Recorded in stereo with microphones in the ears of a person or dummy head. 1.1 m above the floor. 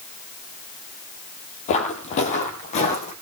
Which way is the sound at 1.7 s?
30° left (ahead or behind).